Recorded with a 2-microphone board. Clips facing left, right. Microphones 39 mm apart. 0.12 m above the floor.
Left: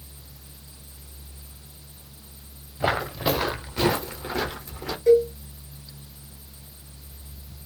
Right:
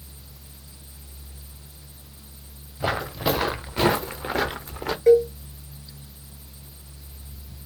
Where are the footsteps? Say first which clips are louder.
Left 1 dB; 15° left (ahead or behind), 0.8 m; by 5.0 s 45° right (ahead or behind), 1.4 m.